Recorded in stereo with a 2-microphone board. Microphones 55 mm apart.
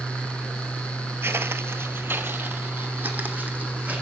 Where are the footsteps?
45° right (ahead or behind), 0.7 m; by 4.0 s 25° right (ahead or behind), 1.9 m.